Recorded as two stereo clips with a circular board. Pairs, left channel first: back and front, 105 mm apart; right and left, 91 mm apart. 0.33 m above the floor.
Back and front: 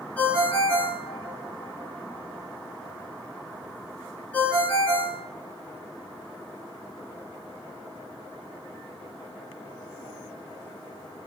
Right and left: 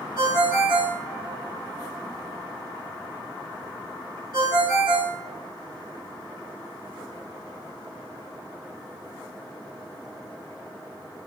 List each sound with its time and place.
0.2 s a ringtone: 105° left, 1.6 m